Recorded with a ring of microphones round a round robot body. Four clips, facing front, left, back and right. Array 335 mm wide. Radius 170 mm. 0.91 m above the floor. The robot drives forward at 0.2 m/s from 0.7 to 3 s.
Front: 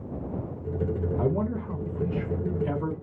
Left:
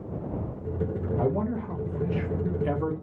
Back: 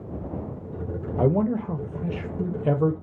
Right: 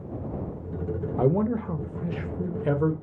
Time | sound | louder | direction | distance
1.2 | a man speaking | right 5 dB, back 8 dB | 140° right | 0.5 m